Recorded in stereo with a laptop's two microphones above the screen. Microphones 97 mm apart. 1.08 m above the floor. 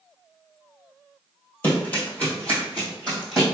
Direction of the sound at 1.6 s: 25° left (ahead or behind).